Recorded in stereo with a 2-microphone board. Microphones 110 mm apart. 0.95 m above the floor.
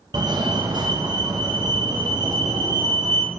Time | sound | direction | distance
0.1 | a fire alarm | 40° right (ahead or behind) | 1.5 m